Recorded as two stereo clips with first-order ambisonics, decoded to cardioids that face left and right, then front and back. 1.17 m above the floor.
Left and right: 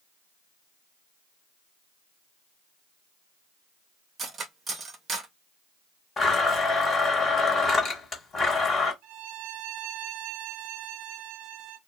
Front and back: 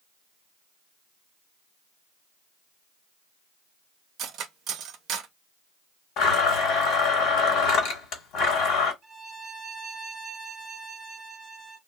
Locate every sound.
4.2 s cutlery clinking: 150° right, 0.6 m
6.2 s a blender: 25° left, 1.4 m
9.0 s a violin: 110° right, 0.6 m